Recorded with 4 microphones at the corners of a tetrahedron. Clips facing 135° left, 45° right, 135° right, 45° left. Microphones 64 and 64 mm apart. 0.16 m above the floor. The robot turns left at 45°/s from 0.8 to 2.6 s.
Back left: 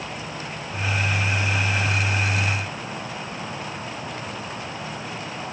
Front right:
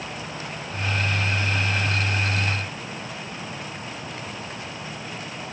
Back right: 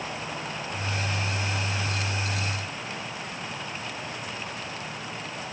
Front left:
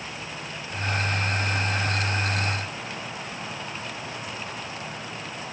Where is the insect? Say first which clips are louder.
Back left 1 dB, back right 3 dB; 145° right, 9.5 m; by 5.5 s 135° left, 9.5 m.